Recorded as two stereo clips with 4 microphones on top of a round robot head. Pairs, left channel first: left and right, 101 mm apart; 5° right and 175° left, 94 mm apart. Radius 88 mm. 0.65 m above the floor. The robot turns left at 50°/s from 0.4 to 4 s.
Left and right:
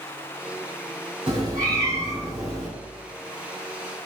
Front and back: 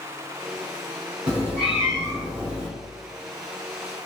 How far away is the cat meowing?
About 1.9 m.